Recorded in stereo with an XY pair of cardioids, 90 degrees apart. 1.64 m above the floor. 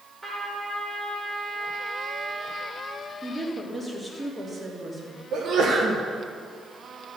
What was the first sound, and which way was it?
A trumpet, 15° right.